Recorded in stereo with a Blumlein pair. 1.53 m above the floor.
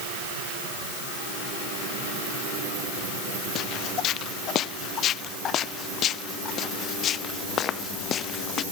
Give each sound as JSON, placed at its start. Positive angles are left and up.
{"t": 3.5, "sound": "footsteps", "azimuth_deg": 35}